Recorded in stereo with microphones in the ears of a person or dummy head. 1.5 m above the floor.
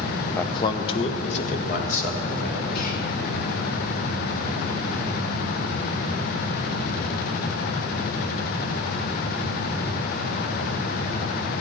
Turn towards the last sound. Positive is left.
turn(degrees=55)  # may be behind; listen again after turning